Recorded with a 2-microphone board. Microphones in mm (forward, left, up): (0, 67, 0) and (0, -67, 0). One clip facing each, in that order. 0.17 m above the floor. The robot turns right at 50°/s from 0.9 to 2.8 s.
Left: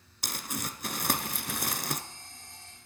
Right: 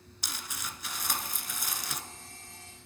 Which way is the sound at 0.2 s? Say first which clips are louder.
Left 6 dB; 65° left.